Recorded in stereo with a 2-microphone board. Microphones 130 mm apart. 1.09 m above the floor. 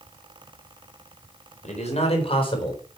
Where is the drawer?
No drawer in this recording.